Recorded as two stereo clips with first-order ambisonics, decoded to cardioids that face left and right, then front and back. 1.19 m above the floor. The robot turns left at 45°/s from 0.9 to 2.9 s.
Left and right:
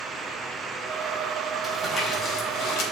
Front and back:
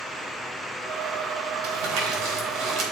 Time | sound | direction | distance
1.6 | crumpling | 175° right | 3.5 m